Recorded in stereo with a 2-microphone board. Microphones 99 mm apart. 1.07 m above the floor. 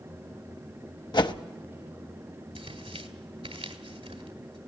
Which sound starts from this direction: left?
A whoosh, at 1.1 s.